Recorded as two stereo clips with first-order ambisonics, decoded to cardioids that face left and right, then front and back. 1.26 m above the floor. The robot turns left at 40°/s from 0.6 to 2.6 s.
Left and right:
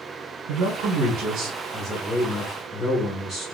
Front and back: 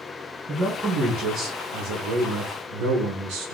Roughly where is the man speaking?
Behind right.